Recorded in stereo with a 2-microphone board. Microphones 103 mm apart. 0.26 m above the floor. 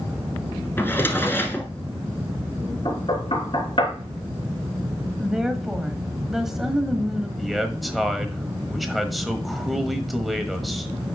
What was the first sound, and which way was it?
A drawer, 20° left (ahead or behind).